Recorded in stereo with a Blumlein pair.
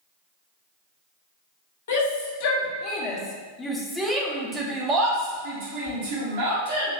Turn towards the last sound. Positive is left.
turn(degrees=-55)